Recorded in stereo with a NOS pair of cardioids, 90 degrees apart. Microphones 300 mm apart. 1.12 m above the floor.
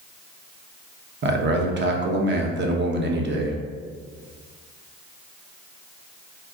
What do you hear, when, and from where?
1.2 s a man speaking: 40° right, 0.9 m